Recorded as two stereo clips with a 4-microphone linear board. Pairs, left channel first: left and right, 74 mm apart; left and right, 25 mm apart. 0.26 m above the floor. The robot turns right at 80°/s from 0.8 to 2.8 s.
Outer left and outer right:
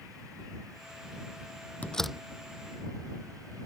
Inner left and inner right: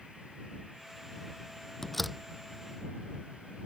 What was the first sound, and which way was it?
A door slam, 20° left (ahead or behind).